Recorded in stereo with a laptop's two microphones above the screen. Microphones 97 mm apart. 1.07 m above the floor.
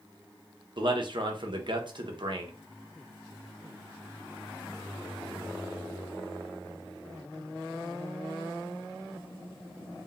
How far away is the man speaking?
About 0.5 m.